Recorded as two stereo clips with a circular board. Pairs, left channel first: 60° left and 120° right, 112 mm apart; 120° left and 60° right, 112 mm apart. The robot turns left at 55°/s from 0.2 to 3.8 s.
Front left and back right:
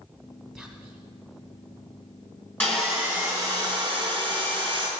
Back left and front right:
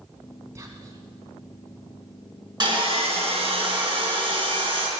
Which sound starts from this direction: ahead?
Sawing, at 2.6 s.